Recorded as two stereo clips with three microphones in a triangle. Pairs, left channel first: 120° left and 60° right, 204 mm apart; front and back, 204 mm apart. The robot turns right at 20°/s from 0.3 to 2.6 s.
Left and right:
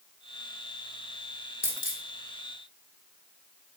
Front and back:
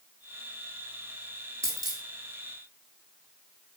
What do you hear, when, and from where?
1.6 s a dropped coin: 110° left, 0.9 m; by 2.0 s 115° left, 0.9 m